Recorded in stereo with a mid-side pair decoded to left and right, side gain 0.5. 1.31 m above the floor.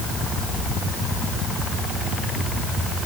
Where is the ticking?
No ticking in this recording.